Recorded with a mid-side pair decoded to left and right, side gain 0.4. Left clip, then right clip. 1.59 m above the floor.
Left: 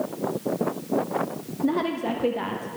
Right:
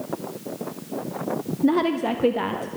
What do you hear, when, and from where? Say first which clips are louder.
1.6 s a woman speaking: right 4 dB; 30° right, 0.8 m